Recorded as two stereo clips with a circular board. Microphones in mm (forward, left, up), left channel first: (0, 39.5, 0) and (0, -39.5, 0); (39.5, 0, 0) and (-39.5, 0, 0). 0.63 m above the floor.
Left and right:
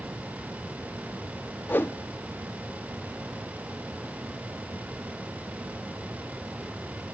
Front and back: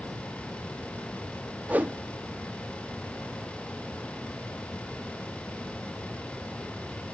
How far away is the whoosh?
About 0.6 m.